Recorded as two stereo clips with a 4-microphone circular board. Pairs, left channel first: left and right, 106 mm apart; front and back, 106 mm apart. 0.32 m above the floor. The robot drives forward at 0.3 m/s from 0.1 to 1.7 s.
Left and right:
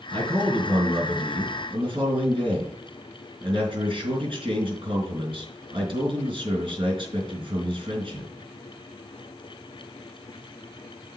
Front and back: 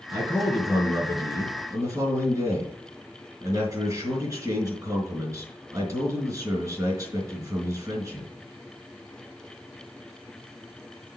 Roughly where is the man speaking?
Behind right.